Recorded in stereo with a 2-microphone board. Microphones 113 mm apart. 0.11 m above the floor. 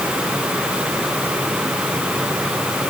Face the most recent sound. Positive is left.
No sound to turn to.